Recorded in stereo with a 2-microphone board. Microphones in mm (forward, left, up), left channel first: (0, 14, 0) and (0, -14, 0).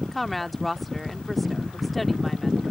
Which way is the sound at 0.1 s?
5° left (ahead or behind).